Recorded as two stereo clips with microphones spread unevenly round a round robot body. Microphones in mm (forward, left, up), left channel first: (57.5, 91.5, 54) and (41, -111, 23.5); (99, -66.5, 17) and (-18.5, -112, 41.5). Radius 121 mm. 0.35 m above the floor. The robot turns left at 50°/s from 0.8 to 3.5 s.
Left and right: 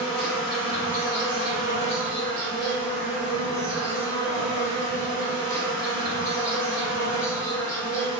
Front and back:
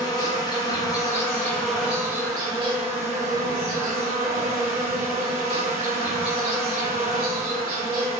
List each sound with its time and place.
0.0 s an insect: 15° right, 1.4 m; by 8.2 s 150° right, 1.4 m